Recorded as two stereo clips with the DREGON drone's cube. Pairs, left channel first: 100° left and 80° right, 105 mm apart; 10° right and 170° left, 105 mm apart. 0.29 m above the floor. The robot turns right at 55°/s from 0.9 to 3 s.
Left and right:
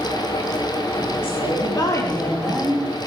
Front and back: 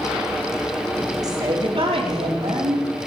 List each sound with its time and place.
1.2 s a woman speaking: 120° left, 6 m; by 2.9 s 150° right, 6 m